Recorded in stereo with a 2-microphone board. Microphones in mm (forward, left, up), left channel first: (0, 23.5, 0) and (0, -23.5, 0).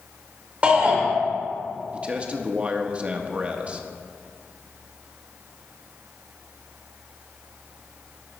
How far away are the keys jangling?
No keys jangling in this recording.